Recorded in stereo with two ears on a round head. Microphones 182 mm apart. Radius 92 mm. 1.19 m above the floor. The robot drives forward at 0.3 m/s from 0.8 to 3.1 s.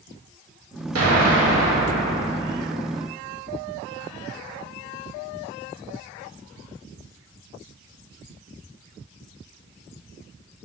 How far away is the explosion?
About 1.8 m.